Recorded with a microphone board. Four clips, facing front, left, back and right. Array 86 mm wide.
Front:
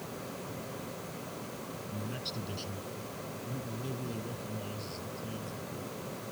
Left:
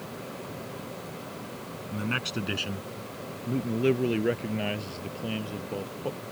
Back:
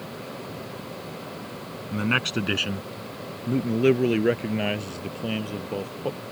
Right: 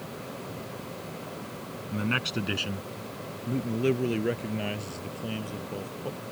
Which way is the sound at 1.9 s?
175° right.